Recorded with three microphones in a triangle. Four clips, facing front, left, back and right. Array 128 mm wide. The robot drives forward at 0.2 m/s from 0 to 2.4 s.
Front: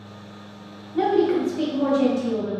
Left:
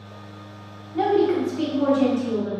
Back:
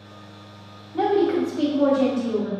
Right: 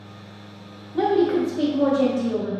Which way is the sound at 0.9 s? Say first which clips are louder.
Even, even; 110° right.